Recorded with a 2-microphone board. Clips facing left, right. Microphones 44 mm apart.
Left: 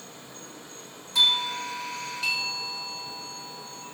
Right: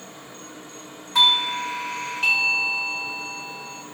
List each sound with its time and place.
0.0 s an insect: 50° right (ahead or behind), 3 m
1.1 s a doorbell: 45° right (ahead or behind), 1.2 m